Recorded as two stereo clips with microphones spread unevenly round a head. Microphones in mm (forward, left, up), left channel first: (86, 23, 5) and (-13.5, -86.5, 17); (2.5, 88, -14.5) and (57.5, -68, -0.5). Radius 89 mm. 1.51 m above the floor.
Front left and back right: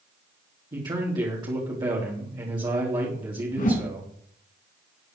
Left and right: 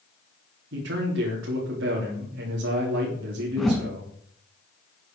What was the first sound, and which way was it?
A man speaking, 70° right.